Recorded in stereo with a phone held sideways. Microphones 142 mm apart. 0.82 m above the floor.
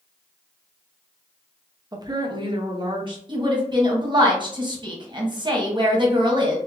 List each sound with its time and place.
1.9 s a woman speaking: 30° right (ahead or behind), 0.6 m; by 3.2 s 35° right (ahead or behind), 1.3 m
3.3 s a woman speaking: 35° right (ahead or behind), 0.9 m